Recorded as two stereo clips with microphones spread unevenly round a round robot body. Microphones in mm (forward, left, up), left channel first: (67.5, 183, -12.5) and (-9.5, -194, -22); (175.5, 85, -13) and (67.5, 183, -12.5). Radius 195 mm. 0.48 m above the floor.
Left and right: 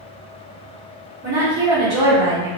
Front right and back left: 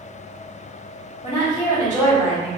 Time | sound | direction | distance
1.2 | a woman speaking | 110° right | 1.1 m